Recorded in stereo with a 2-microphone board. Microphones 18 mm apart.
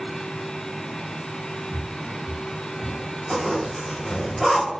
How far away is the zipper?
About 4.5 m.